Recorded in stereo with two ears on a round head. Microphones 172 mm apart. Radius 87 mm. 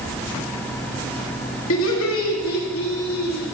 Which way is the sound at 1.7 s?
70° left (ahead or behind).